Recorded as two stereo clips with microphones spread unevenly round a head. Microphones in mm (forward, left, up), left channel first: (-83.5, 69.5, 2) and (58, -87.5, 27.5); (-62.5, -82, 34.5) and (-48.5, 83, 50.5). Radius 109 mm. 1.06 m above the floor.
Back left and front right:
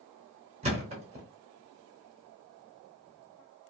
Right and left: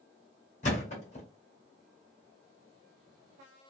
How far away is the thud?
About 0.9 m.